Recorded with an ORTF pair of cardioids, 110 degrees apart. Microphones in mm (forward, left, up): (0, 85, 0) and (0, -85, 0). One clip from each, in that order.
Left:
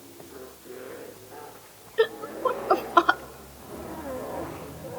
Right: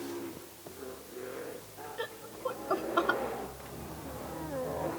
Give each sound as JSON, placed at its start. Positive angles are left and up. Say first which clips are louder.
{"t": 2.0, "sound": "laughter", "louder": "left 14 dB", "azimuth_deg": 50, "distance_m": 0.8}
{"t": 3.6, "sound": "footsteps", "louder": "left 6 dB", "azimuth_deg": 65, "distance_m": 6.5}